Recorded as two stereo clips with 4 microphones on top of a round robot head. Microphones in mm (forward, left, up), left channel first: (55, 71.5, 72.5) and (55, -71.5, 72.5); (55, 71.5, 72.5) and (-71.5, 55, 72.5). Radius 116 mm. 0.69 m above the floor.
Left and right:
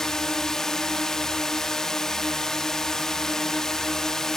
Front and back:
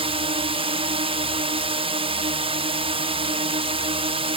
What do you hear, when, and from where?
0.0 s a drone: 175° left